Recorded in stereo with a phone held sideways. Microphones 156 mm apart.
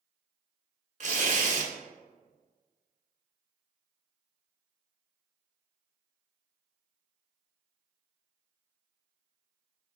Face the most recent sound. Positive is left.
turn(degrees=-55)  # may be behind; listen again after turning